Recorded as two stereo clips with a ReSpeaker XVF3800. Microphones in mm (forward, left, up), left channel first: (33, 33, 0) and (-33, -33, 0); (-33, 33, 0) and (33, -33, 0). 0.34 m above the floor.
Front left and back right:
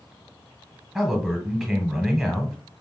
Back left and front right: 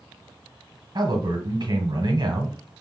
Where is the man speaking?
45° right, 1.2 m.